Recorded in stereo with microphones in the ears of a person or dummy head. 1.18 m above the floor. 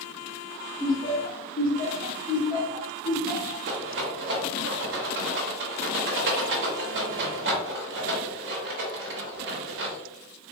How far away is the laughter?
About 1.0 m.